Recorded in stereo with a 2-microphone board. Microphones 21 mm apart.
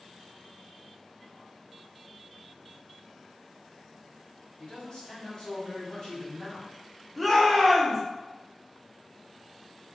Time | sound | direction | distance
4.6 | a man speaking | 35° left (ahead or behind) | 1.6 m
7.2 | a shout | 5° right (ahead or behind) | 0.6 m